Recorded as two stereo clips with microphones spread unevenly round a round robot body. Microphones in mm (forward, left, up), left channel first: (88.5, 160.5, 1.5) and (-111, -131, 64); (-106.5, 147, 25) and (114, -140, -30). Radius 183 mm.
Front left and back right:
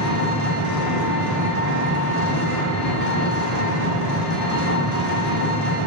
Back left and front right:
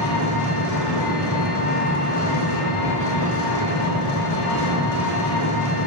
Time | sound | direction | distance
0.0 | an engine running | 90° left | 1.4 m